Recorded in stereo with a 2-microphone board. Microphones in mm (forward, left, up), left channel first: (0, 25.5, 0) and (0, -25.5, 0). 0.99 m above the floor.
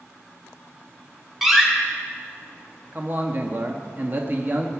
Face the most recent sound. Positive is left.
turn(degrees=-40)  # may be behind; listen again after turning